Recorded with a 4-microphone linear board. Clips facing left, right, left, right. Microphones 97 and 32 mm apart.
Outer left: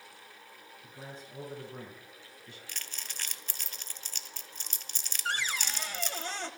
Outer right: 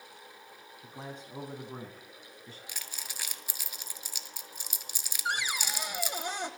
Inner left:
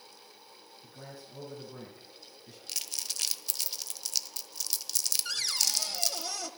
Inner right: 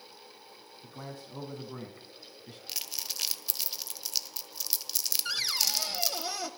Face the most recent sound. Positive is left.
turn(degrees=-15)  # may be behind; listen again after turning